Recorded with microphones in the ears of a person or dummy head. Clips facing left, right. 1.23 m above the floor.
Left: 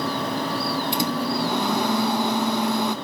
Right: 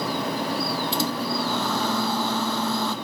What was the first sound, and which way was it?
A microwave, 20° left (ahead or behind).